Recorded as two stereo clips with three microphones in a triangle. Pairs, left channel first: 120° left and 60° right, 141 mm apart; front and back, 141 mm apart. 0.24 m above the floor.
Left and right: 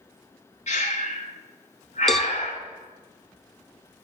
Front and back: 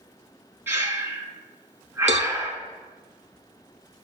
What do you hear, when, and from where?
0.7 s breathing: 110° left, 1.6 m
2.1 s a cowbell: 150° right, 0.7 m